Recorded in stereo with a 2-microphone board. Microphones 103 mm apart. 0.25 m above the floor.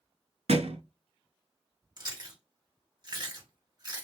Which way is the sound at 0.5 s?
75° right (ahead or behind).